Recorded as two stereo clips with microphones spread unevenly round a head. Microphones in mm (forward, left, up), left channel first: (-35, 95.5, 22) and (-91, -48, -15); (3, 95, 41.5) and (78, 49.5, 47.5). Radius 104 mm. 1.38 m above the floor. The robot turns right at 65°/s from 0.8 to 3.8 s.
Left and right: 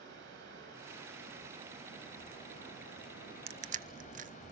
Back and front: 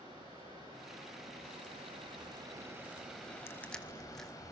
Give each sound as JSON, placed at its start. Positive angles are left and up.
{"t": 0.0, "sound": "running water", "azimuth_deg": -95, "distance_m": 6.5}
{"t": 3.5, "sound": "crushing", "azimuth_deg": -150, "distance_m": 0.7}